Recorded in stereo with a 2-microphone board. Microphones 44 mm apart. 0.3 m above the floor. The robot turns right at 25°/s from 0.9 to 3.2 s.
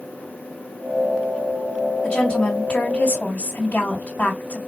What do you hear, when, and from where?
2.0 s a woman speaking: 30° left (ahead or behind), 1.7 m; by 4.6 s 40° left (ahead or behind), 1.7 m